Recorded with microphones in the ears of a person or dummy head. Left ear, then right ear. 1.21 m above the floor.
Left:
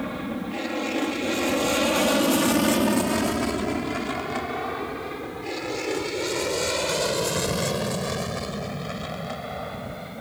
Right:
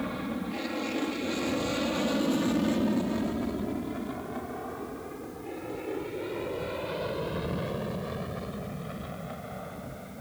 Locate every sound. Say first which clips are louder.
0.0 s an aircraft: left 3 dB; centre (ahead or behind); by 10.2 s 80° left